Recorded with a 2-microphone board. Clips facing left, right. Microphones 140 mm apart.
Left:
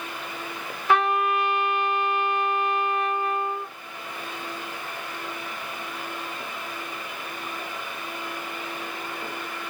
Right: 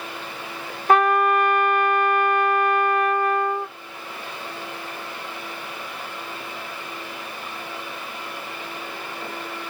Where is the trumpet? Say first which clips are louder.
Right 5 dB; 45° right (ahead or behind), 0.7 m.